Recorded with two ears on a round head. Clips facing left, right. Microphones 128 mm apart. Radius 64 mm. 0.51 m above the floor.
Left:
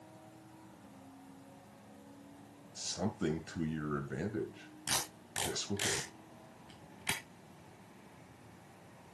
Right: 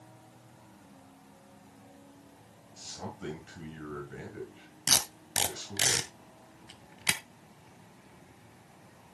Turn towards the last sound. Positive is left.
turn(degrees=-75)  # may be behind; listen again after turning